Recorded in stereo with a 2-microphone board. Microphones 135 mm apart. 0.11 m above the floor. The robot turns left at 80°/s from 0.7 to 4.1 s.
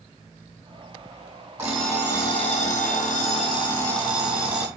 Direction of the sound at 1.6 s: 165° right.